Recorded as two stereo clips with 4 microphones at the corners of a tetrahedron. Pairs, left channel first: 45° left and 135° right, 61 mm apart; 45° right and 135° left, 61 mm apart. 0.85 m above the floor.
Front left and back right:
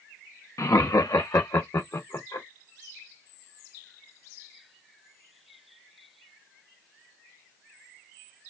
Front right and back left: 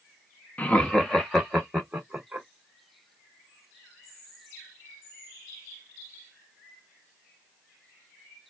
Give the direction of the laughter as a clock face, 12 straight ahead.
11 o'clock.